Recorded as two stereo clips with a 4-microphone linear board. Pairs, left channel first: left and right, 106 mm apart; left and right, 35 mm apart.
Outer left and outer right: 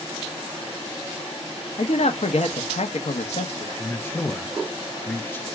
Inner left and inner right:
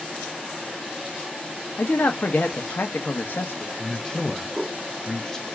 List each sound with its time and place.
1.8 s a man speaking: 75° left (ahead or behind), 0.9 m
3.8 s a man speaking: 20° left (ahead or behind), 1.0 m